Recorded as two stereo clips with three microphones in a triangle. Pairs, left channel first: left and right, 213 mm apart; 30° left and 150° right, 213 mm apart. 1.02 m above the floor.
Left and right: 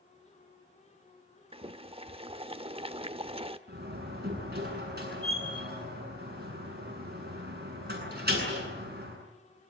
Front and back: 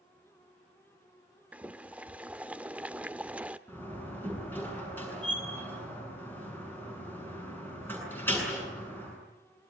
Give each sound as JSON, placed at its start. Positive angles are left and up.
{"t": 1.5, "sound": "boiling", "azimuth_deg": -70, "distance_m": 0.7}
{"t": 3.7, "sound": "a door slam", "azimuth_deg": -50, "distance_m": 8.0}